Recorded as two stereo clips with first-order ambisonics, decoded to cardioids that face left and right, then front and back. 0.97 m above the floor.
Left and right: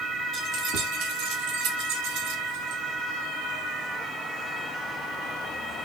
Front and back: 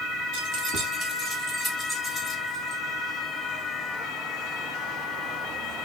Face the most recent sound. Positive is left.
turn(degrees=-80)